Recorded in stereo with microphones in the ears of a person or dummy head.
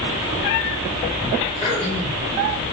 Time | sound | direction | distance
1.6 | throat clearing | 25° left (ahead or behind) | 1.0 m